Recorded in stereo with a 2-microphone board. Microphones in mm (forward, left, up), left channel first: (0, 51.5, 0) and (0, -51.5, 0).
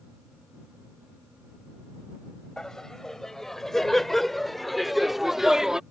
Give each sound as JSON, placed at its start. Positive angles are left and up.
{"t": 2.6, "sound": "laughter", "side_deg": 5}